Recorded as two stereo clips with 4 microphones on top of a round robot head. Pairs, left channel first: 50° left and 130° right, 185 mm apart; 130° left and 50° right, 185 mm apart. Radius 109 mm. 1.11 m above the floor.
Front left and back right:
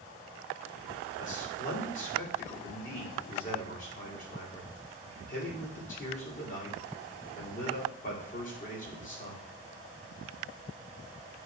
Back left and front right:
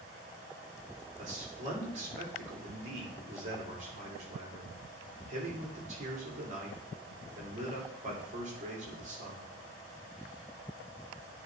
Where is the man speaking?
Straight ahead, 2.5 m.